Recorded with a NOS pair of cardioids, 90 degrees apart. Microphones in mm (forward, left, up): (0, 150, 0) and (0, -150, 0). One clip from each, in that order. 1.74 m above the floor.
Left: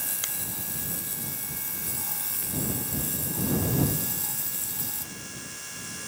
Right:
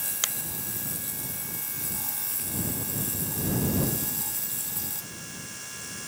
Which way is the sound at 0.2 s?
50° right.